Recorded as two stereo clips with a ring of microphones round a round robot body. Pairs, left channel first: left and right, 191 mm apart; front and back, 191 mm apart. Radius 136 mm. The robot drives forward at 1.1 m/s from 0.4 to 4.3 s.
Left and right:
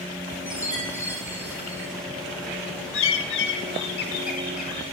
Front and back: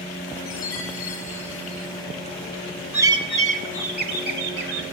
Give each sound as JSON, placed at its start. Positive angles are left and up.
{"t": 0.5, "sound": "a chime", "azimuth_deg": -10, "distance_m": 7.0}
{"t": 2.9, "sound": "a bird", "azimuth_deg": 100, "distance_m": 1.1}